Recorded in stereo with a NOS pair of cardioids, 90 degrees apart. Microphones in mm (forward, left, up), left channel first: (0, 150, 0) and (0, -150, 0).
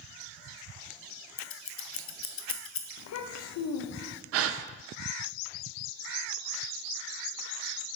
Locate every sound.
1.4 s scissors: 45° left, 0.7 m
3.0 s a child speaking: 60° left, 0.7 m
4.3 s a gasp: 50° right, 0.5 m